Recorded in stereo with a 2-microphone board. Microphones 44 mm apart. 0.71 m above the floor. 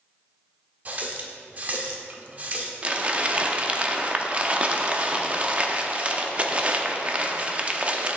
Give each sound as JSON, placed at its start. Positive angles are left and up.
{"t": 0.8, "sound": "a running tap", "side_deg": -40, "distance_m": 0.9}
{"t": 2.8, "sound": "crumpling", "side_deg": -30, "distance_m": 0.6}